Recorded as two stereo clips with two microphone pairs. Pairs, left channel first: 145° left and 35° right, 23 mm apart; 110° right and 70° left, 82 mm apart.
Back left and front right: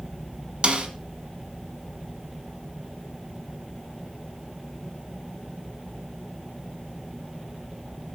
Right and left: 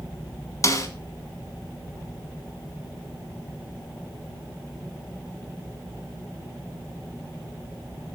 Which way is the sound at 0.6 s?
65° right.